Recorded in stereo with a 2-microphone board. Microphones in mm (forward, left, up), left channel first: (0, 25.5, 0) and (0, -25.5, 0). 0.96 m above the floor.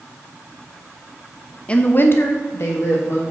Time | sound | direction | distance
1.7 | a woman speaking | 20° left (ahead or behind) | 1.0 m